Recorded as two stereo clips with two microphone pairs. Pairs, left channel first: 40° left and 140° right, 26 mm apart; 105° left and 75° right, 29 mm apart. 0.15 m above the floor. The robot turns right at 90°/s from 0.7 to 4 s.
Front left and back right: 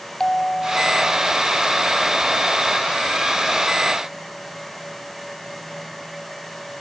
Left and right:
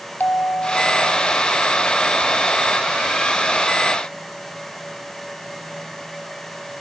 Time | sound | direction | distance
0.2 | a bell | 105° left | ?